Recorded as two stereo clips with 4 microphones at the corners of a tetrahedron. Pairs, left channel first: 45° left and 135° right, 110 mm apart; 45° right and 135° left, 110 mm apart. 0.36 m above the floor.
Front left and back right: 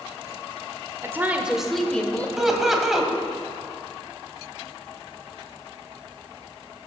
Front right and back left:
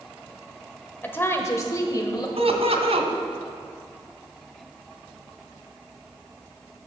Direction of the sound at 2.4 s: 140° left.